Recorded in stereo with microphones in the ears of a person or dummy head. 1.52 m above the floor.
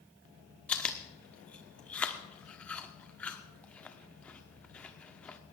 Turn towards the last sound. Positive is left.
turn(degrees=5)  # may be behind; listen again after turning